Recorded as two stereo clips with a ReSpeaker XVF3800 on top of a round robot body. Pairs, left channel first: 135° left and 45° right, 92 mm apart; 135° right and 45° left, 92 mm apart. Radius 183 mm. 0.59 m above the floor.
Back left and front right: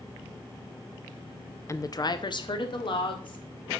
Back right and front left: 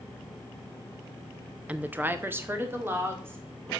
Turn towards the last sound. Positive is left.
turn(degrees=110)